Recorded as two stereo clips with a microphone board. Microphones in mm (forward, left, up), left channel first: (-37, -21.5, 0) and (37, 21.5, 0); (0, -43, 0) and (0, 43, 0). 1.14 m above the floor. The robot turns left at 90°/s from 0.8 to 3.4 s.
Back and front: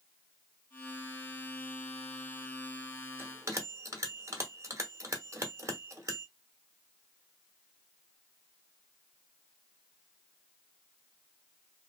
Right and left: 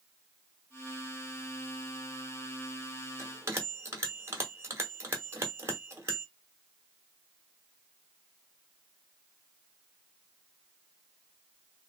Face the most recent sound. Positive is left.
turn(degrees=60)